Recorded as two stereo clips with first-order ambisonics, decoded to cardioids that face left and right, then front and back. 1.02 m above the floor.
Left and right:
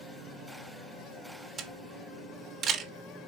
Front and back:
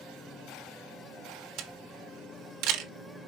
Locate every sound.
1.6 s a camera shutter: 155° right, 1.0 m